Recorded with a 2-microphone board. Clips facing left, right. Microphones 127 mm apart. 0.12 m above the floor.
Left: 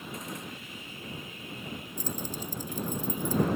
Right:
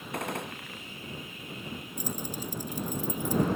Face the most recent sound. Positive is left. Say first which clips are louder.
# right 1 dB
turn(degrees=-15)  # may be behind; listen again after turning